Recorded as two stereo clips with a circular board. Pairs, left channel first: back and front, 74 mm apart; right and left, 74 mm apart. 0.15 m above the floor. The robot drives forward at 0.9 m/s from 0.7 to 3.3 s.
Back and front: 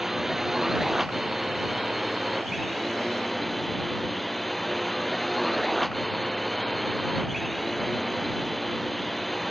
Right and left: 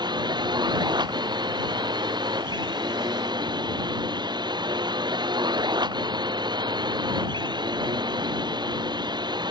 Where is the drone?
85° left; by 9.5 s 90° left.